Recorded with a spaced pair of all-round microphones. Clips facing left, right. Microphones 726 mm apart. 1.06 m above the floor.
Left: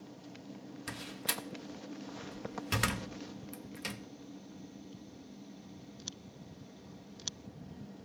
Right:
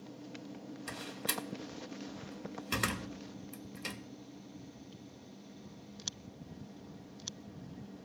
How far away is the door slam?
About 0.6 m.